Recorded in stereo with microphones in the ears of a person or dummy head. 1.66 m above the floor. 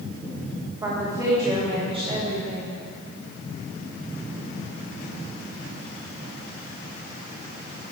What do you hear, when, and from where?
0.8 s a woman speaking: 15° right (ahead or behind), 2.5 m; by 2.7 s 35° right (ahead or behind), 2 m